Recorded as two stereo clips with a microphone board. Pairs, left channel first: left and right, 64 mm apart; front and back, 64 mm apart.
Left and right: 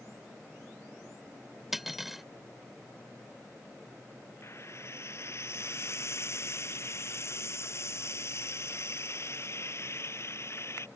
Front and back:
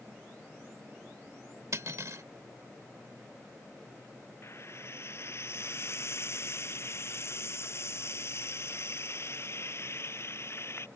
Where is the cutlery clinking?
175° right.